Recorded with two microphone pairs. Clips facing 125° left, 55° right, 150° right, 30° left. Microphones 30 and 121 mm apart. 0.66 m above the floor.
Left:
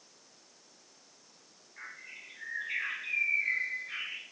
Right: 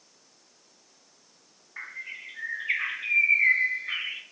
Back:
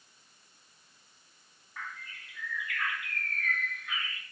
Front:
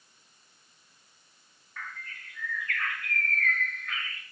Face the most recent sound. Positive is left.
turn(degrees=-75)